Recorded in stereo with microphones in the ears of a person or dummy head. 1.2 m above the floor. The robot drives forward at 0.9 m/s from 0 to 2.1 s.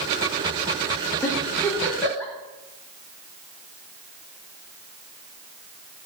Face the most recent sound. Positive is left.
turn(degrees=15)  # may be behind; listen again after turning